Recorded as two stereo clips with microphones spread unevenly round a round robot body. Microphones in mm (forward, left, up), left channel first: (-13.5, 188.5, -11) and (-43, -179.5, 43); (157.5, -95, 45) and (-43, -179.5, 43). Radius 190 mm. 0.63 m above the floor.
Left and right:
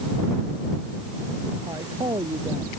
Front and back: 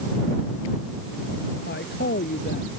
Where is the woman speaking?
15° right.